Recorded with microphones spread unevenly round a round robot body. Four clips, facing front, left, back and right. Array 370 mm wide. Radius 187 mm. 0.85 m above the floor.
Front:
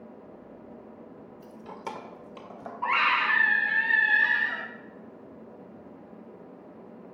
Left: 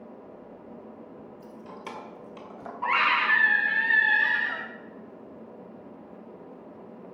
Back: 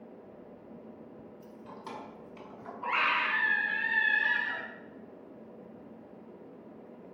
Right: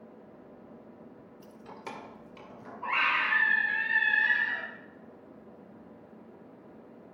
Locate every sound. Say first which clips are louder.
1.4 s keys jangling: left 1 dB, front 7 dB; 25° right, 1.5 m; by 2.7 s 10° left, 3 m
2.8 s a scream: left 5 dB, front 5 dB; 55° left, 6 m